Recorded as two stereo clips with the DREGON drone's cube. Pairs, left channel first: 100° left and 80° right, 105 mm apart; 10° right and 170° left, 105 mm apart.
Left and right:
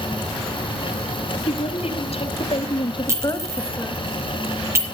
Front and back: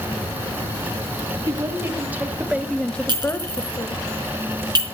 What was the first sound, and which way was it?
A woman speaking, 110° left.